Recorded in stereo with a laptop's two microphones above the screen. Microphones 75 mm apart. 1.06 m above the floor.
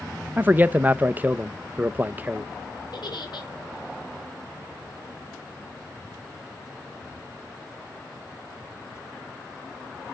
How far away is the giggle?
About 2.5 m.